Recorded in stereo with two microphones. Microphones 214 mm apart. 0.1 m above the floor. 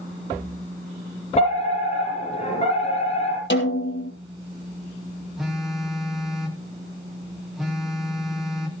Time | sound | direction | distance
1.4 | a fire alarm | 35° left (ahead or behind) | 5.5 m
3.5 | a snare drum | 65° left (ahead or behind) | 3 m
5.4 | a phone buzzing | centre (ahead or behind) | 3 m